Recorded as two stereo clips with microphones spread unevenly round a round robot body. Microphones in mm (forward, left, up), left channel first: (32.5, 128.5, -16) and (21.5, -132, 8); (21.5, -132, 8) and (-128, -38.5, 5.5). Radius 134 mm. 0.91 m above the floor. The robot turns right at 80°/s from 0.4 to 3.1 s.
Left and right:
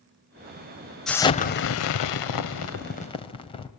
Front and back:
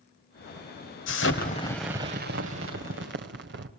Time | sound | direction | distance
1.1 | an explosion | 5° right | 1.8 m